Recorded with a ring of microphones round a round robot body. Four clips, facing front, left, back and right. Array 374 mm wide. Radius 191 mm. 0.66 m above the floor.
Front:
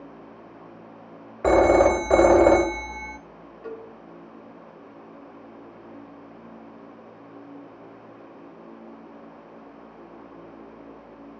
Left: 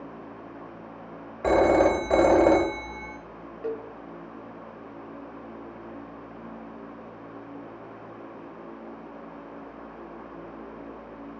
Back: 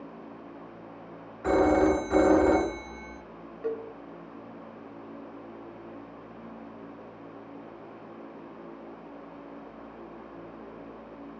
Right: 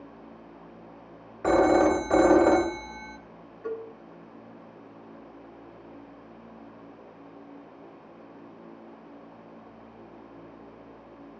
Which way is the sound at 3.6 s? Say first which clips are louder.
Left 2 dB, back 5 dB; 115° left.